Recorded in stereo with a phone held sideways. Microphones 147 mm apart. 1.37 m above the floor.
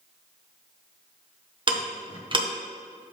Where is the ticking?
35° right (ahead or behind), 0.8 m.